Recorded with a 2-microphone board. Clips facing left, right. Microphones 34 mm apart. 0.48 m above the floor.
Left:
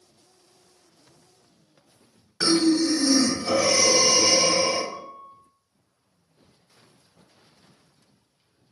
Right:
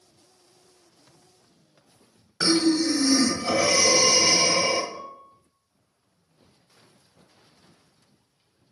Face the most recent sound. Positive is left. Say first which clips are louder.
# left 1 dB
turn(degrees=40)  # may be behind; listen again after turning